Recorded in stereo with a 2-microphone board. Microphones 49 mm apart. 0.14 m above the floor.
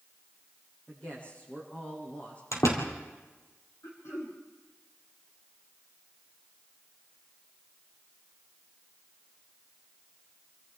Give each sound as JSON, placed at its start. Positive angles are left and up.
{"t": 0.9, "sound": "a man speaking", "side_deg": 25, "distance_m": 7.0}
{"t": 2.5, "sound": "a door slam", "side_deg": 75, "distance_m": 3.0}
{"t": 3.8, "sound": "throat clearing", "side_deg": 60, "distance_m": 4.5}